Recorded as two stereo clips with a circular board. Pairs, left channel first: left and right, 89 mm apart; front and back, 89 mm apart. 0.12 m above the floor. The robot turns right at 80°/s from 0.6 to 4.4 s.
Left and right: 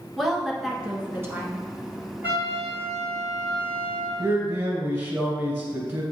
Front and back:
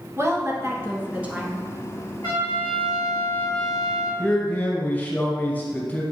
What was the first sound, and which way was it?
A woman speaking, 175° right.